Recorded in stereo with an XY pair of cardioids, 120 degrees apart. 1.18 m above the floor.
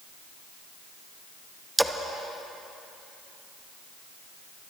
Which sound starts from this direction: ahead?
A splash, at 1.8 s.